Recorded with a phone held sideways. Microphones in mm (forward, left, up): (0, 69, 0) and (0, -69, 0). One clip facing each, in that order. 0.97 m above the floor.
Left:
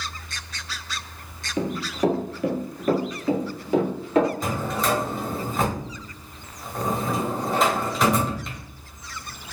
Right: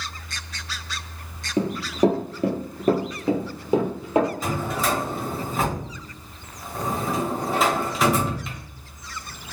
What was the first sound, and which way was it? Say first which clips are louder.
Running footsteps: right 3 dB; 35° right (ahead or behind).